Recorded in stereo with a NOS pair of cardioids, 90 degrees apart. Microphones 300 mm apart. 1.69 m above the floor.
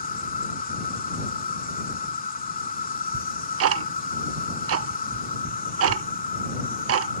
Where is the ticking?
50° right.